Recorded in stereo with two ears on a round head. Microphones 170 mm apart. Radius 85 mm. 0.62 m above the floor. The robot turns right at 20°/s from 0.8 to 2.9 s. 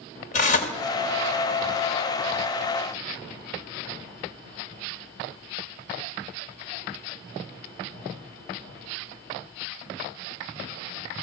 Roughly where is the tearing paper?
Left.